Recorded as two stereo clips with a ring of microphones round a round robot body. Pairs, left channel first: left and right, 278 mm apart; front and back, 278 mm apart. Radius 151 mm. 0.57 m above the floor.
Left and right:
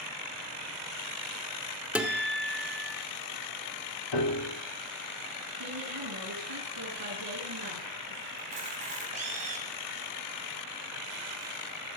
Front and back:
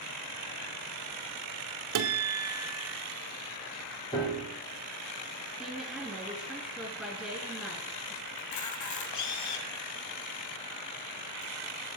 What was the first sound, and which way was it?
A guitar, 175° right.